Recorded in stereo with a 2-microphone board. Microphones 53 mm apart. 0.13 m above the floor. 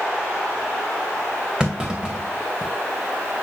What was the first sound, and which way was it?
A clunk, 10° right (ahead or behind).